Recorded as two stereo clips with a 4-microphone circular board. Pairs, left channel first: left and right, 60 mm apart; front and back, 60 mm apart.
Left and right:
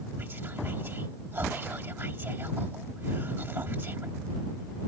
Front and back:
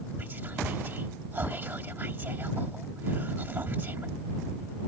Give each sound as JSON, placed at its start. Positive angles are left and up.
{"t": 0.2, "sound": "whispering", "azimuth_deg": -135}